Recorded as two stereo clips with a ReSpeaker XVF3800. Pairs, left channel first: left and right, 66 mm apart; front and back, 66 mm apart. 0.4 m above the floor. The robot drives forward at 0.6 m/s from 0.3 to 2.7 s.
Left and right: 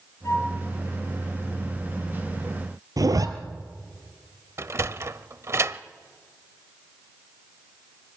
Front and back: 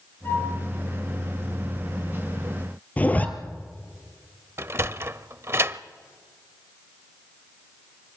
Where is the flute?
50° left, 5 m; by 0.5 s 55° left, 5 m.